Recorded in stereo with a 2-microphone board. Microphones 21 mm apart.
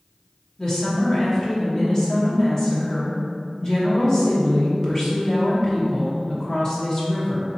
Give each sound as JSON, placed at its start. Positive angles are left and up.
{"t": 0.6, "sound": "a woman speaking", "side_deg": 25, "distance_m": 1.1}